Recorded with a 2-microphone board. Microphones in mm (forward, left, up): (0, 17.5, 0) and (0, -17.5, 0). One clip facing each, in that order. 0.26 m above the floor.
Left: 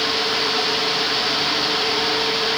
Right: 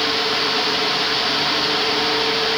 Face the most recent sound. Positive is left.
No sound to turn to.